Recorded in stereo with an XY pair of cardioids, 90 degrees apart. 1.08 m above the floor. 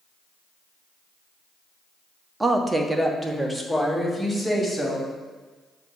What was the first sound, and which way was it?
A woman speaking, 25° right.